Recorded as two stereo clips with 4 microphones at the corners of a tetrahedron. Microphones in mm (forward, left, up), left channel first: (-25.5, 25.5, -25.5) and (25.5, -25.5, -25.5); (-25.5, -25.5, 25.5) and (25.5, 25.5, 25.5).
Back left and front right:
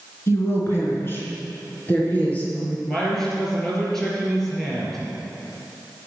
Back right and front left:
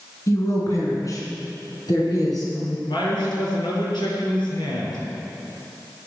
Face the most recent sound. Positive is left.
turn(degrees=-140)